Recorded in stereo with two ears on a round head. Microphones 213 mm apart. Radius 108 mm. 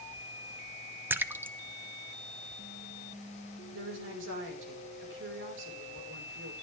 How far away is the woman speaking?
About 5.5 m.